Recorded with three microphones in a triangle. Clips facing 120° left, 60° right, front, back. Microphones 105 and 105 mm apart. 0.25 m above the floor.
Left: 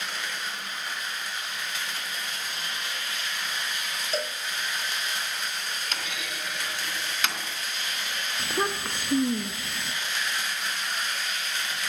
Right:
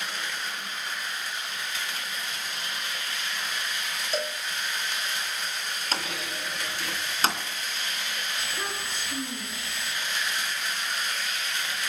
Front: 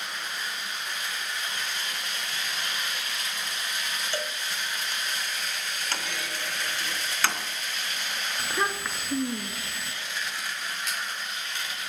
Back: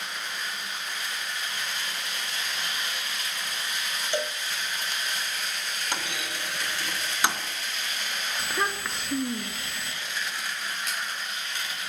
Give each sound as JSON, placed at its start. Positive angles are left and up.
{"t": 4.1, "sound": "a cowbell", "azimuth_deg": -150, "distance_m": 1.1}
{"t": 5.9, "sound": "a clunk", "azimuth_deg": -110, "distance_m": 2.5}
{"t": 8.4, "sound": "a child speaking", "azimuth_deg": 90, "distance_m": 1.7}